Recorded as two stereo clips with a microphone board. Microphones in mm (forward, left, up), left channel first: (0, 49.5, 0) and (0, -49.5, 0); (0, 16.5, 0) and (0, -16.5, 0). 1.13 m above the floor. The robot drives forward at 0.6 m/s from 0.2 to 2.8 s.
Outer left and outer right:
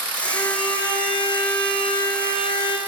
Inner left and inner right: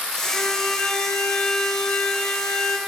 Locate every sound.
0.2 s a violin: 45° left (ahead or behind), 5.5 m; by 2.8 s 60° left (ahead or behind), 4.5 m